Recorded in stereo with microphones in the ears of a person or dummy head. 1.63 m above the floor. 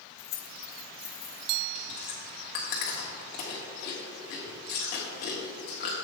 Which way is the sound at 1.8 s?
35° left (ahead or behind).